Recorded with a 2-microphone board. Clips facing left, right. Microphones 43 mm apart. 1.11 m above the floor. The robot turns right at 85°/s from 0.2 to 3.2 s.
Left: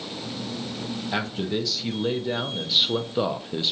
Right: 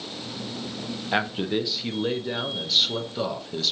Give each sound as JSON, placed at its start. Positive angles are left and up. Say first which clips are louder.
{"t": 1.1, "sound": "a man speaking", "louder": "right 3 dB", "side_deg": -20, "distance_m": 0.6}